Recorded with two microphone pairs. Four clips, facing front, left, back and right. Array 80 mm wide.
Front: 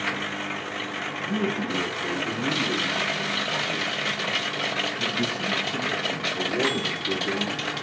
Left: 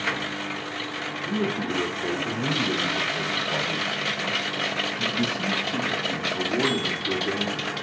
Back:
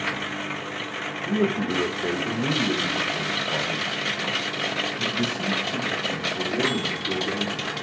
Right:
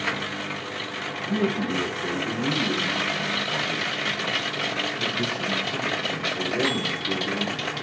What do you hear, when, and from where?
1.3 s a man speaking: 170° right, 1.5 m; by 7.7 s 100° left, 4 m